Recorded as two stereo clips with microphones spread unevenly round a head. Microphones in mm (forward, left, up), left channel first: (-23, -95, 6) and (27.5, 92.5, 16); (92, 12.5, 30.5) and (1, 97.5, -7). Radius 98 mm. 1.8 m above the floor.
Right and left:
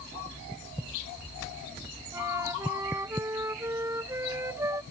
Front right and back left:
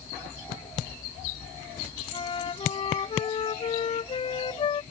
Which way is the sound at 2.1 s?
Straight ahead.